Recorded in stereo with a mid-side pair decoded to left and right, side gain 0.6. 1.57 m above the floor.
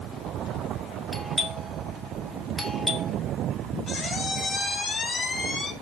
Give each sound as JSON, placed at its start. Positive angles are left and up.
{"t": 1.1, "sound": "a doorbell", "azimuth_deg": 20, "distance_m": 3.0}
{"t": 3.9, "sound": "a squeak", "azimuth_deg": 30, "distance_m": 7.5}